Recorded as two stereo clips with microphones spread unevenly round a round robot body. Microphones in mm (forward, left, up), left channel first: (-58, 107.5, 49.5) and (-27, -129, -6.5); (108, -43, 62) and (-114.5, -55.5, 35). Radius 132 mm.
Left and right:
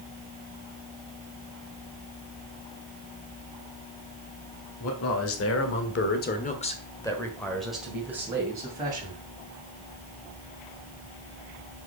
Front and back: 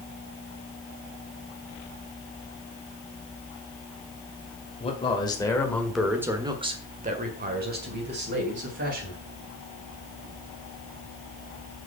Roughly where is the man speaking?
Left.